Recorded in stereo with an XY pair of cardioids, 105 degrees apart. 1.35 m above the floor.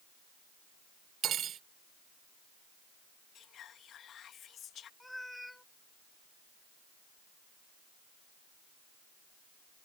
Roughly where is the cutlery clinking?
Ahead right.